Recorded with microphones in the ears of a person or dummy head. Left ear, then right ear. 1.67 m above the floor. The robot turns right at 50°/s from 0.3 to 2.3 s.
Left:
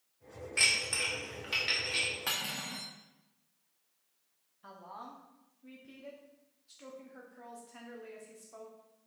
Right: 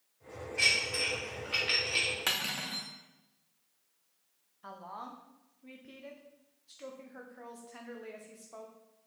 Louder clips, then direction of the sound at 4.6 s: Right 3 dB; 15° right (ahead or behind).